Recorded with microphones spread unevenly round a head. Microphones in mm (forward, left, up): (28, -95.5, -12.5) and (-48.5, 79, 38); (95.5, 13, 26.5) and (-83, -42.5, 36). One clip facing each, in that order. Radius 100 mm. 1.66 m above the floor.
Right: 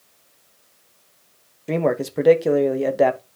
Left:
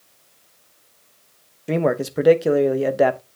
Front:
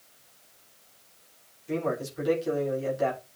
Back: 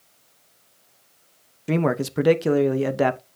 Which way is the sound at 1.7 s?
160° right.